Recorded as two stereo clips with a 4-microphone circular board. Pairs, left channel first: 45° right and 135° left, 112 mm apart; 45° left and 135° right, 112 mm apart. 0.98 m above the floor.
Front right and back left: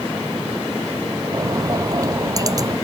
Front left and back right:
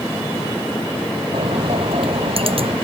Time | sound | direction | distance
1.3 | a bird | 165° right | ?